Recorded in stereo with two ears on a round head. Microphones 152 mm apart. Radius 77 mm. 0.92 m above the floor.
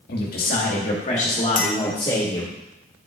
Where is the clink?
50° left (ahead or behind), 1.0 m.